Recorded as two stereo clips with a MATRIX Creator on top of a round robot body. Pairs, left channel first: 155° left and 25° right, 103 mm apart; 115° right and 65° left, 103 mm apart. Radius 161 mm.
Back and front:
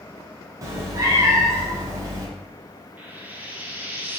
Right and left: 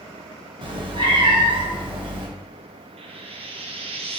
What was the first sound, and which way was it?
A cat meowing, 35° left.